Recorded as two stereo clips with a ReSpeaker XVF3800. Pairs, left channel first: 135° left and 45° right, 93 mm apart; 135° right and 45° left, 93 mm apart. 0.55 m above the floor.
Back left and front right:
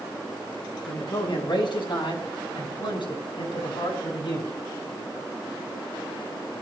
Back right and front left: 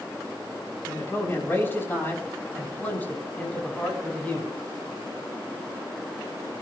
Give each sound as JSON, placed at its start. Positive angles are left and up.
{"t": 0.9, "sound": "a man speaking", "azimuth_deg": 165, "distance_m": 6.0}